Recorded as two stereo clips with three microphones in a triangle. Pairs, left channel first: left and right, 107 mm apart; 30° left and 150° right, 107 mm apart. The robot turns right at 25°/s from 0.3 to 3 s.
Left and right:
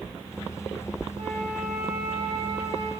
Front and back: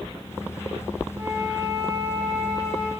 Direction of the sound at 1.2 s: 100° right.